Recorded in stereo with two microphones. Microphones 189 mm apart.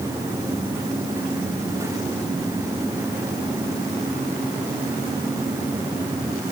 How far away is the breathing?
I don't hear breathing.